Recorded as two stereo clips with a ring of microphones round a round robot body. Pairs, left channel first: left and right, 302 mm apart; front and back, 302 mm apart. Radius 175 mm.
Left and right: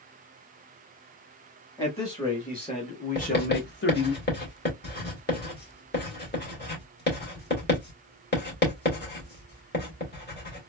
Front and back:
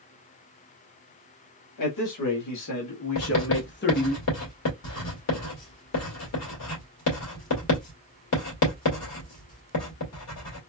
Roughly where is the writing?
Ahead left.